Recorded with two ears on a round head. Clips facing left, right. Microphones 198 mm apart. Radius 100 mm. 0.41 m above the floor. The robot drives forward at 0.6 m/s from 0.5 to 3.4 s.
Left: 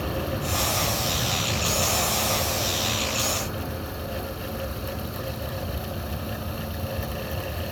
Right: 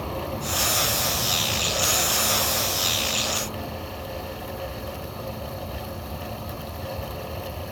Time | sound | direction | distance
0.0 | an aircraft | 15° left (ahead or behind) | ?